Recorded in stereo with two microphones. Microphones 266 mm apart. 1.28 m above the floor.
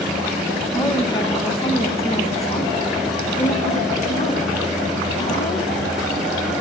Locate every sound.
0.7 s a woman speaking: 15° left (ahead or behind), 1.5 m; by 5.7 s 30° left (ahead or behind), 4 m